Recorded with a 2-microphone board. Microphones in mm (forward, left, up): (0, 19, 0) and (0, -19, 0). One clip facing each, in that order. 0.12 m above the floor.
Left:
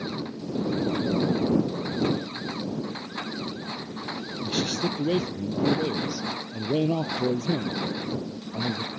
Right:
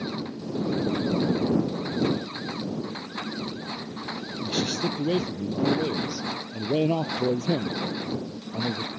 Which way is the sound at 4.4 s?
5° left (ahead or behind).